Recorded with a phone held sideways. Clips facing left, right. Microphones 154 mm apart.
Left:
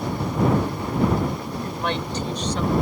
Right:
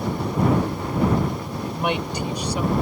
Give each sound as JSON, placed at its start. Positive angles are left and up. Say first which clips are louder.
{"t": 1.6, "sound": "a woman speaking", "louder": "right 4 dB", "side_deg": -15}